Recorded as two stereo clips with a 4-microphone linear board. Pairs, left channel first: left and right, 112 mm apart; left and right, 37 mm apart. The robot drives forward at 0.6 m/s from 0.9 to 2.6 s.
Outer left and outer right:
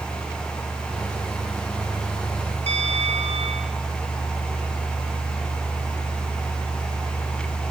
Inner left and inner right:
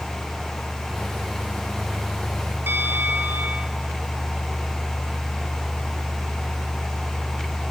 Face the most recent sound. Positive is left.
turn(degrees=-70)  # may be behind; listen again after turning